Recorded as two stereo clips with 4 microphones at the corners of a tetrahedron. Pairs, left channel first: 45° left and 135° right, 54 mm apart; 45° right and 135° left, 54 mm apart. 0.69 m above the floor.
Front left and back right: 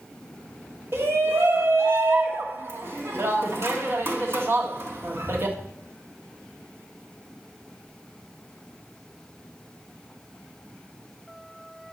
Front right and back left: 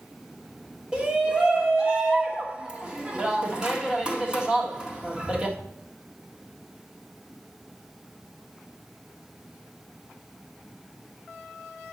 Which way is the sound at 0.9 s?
155° right.